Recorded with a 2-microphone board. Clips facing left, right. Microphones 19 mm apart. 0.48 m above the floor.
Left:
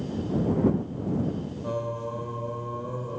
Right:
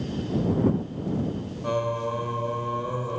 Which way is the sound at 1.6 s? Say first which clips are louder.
Right 6 dB; 65° right (ahead or behind).